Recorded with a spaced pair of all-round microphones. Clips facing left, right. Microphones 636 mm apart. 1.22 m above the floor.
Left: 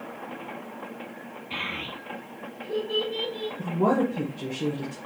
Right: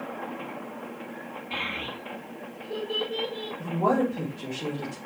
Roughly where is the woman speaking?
Left.